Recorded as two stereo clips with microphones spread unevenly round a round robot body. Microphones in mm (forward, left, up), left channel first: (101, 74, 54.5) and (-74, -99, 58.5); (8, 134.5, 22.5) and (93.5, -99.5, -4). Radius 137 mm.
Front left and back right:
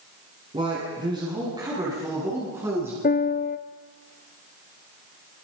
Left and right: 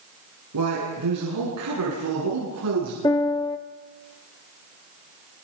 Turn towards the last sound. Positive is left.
turn(degrees=40)